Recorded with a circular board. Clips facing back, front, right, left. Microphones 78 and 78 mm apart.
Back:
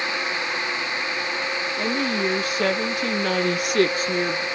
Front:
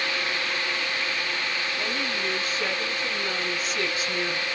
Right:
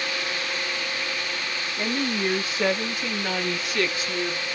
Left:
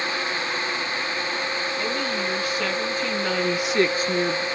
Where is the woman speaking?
145° right, 1.3 m; by 4.5 s 120° left, 0.7 m.